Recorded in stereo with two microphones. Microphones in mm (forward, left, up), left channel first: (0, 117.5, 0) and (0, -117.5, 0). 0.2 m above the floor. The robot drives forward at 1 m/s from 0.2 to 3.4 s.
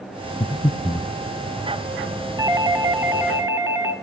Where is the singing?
No singing in this recording.